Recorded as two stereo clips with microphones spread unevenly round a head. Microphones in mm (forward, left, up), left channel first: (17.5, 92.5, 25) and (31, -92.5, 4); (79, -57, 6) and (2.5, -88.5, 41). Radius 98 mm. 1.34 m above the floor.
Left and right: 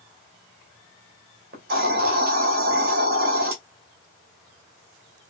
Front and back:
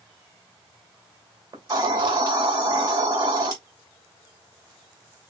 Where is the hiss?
130° right, 2.5 m.